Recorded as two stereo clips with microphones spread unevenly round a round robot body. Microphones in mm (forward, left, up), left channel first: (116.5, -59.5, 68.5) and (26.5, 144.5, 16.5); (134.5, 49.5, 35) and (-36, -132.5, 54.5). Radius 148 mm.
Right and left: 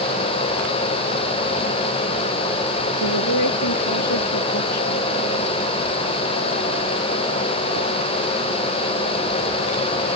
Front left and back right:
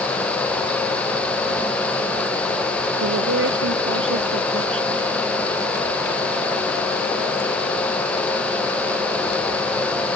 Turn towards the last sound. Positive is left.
turn(degrees=-95)